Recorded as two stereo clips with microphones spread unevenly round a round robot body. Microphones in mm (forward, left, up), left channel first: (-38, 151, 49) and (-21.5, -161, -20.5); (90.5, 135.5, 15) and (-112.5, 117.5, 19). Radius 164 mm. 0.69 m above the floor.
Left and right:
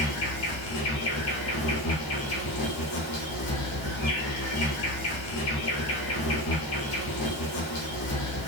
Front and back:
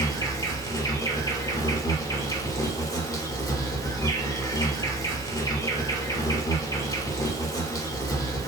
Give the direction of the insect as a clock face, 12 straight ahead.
9 o'clock.